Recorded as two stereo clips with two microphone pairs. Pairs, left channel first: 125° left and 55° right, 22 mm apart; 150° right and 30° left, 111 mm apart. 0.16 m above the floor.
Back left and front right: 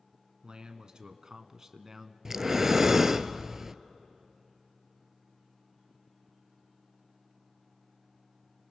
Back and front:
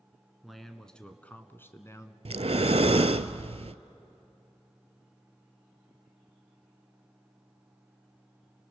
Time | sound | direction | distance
0.4 | a man speaking | 60° right | 1.5 m
2.2 | breathing | 10° left | 0.6 m